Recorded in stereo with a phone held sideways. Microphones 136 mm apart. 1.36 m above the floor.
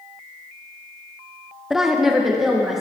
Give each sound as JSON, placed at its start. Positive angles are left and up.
{"t": 1.7, "sound": "a woman speaking", "side_deg": -5, "distance_m": 0.9}